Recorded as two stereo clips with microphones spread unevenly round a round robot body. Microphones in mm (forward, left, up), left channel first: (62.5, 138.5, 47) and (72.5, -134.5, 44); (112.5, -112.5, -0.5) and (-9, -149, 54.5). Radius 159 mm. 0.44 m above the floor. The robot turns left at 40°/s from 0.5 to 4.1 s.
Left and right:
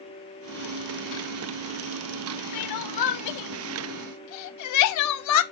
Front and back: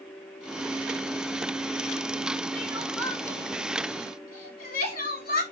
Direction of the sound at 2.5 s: 135° left.